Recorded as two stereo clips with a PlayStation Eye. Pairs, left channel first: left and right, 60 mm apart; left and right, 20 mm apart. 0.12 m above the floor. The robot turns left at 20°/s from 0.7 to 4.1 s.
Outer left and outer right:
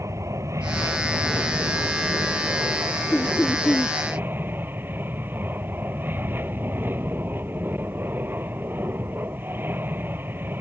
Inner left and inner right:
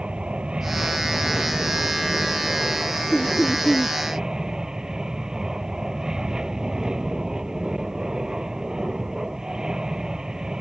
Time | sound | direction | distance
0.0 | an aircraft | 70° right | ?
3.1 | laughter | 35° left (ahead or behind) | ?